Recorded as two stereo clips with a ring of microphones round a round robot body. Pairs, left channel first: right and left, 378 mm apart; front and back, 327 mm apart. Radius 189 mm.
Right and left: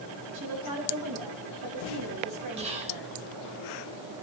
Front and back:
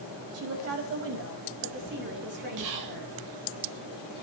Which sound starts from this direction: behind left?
A woman speaking, at 0.3 s.